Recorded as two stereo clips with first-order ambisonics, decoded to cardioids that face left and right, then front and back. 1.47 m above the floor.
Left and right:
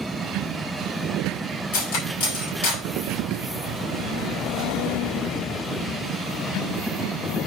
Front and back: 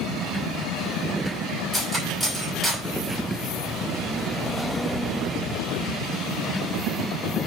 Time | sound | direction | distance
1.7 | cutlery clinking | 90° left | 4 m